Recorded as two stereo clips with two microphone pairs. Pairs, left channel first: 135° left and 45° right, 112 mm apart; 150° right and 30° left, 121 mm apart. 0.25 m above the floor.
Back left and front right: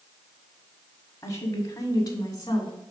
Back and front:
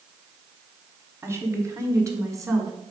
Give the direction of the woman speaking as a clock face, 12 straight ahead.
9 o'clock.